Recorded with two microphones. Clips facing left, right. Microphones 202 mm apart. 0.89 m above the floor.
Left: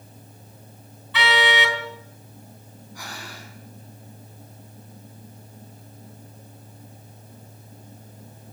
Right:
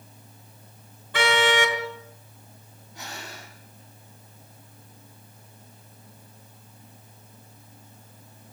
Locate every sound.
1.1 s a car horn: 50° right (ahead or behind), 4 m
3.0 s breathing: 25° right (ahead or behind), 8 m